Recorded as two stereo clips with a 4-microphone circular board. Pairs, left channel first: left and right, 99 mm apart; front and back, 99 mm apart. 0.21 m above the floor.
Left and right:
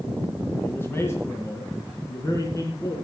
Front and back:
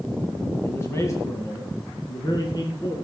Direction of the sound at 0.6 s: 45° left.